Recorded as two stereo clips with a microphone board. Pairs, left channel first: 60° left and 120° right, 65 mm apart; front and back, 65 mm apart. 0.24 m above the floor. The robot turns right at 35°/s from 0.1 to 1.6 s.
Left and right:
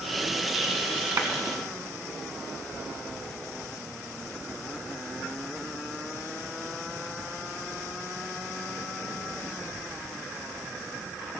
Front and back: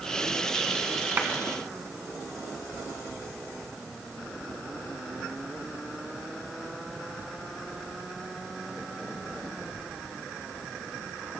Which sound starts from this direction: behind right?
A clap, at 1.2 s.